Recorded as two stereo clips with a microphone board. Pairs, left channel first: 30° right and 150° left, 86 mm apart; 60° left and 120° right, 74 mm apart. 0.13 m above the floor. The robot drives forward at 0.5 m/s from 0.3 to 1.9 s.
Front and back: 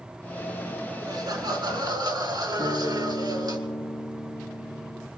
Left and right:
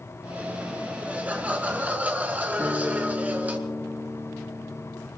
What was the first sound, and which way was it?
Laughter, 170° left.